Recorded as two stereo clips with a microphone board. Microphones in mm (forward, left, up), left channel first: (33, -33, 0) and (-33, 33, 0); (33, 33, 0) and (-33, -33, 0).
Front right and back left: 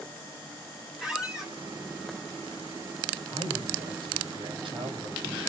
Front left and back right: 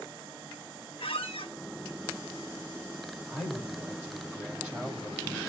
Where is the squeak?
50° left, 1.1 m.